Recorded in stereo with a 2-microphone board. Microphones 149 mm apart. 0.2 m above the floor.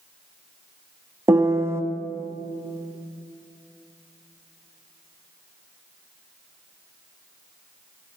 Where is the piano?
20° right (ahead or behind), 0.5 m.